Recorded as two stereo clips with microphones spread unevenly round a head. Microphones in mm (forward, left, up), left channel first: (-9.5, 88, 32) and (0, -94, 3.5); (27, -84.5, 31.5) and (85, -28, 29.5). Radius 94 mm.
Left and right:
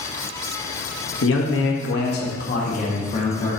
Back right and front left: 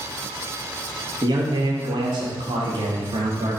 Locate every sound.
1.2 s a man speaking: 90° left, 1.2 m; by 3.6 s 35° left, 1.8 m